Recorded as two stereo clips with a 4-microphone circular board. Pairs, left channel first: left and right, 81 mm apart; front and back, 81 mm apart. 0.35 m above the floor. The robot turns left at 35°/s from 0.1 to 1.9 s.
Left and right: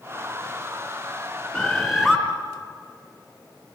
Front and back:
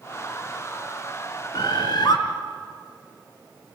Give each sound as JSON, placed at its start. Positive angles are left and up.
{"t": 1.5, "sound": "a bird", "azimuth_deg": 10, "distance_m": 3.5}